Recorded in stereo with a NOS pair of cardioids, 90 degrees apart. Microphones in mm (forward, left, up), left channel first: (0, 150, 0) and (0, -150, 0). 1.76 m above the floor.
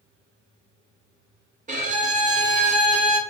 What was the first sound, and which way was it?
A violin, 25° right.